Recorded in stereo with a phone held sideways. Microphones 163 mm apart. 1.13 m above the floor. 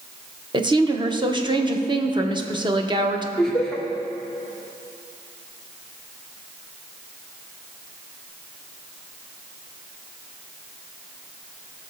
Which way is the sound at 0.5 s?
30° right (ahead or behind).